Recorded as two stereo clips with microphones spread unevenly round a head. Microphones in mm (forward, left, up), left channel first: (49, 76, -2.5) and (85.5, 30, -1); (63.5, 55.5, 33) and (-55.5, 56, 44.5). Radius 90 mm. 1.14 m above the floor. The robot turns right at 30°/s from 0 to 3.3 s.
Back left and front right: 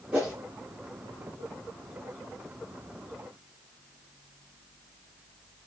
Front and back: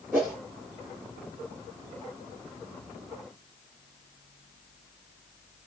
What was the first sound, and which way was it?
A whoosh, 115° right.